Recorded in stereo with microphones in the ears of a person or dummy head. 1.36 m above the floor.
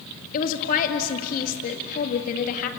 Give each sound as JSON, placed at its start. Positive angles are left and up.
{"t": 0.3, "sound": "a woman speaking", "side_deg": 45, "distance_m": 2.0}